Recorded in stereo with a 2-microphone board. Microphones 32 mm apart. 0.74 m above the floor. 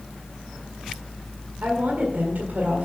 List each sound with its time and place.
1.6 s a woman speaking: 75° right (ahead or behind), 1.9 m